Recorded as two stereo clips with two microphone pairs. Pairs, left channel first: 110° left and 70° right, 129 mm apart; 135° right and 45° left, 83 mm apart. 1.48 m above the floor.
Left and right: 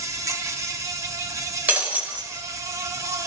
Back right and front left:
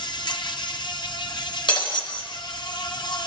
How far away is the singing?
No singing in this recording.